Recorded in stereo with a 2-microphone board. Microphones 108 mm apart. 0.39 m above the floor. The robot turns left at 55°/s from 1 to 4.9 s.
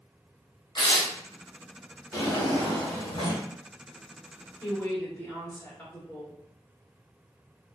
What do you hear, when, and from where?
0.8 s tearing paper: 45° left (ahead or behind), 0.6 m; by 1.1 s 40° left (ahead or behind), 0.6 m
2.1 s a drawer: 145° left, 1.1 m; by 3.5 s 70° left, 1.1 m
4.6 s a woman speaking: 20° left (ahead or behind), 1.0 m; by 6.4 s 15° left (ahead or behind), 1.0 m